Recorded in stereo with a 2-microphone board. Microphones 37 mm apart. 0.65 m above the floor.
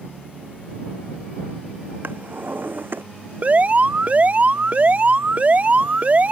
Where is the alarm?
45° right (ahead or behind).